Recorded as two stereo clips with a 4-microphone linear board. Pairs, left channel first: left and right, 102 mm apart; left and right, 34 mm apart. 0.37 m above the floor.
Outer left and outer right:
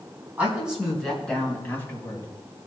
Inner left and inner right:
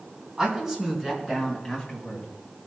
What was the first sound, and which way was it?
A woman speaking, 15° right (ahead or behind).